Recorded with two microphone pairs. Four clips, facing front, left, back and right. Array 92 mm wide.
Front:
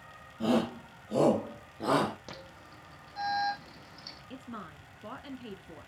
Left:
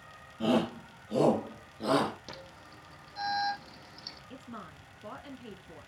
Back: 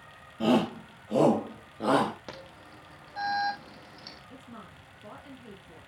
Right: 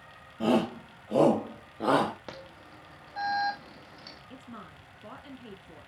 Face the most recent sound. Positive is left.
turn(degrees=20)